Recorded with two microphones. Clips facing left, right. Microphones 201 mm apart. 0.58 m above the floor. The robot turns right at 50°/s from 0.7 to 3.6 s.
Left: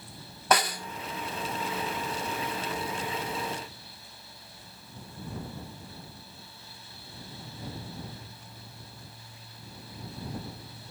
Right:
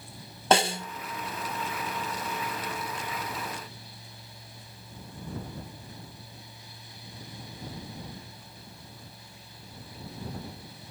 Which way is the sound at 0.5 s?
25° right (ahead or behind).